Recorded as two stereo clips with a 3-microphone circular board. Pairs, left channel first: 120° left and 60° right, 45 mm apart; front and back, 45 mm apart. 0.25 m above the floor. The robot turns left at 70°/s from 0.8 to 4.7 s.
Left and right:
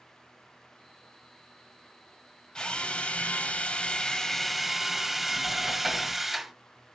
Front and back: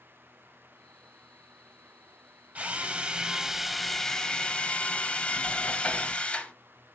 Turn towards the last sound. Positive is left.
turn(degrees=25)